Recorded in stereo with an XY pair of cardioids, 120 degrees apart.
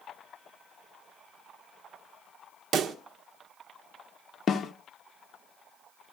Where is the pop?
50° right, 1.1 m.